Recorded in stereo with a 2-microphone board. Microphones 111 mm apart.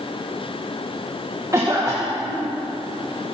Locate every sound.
1.5 s a cough: 25° right (ahead or behind), 1.3 m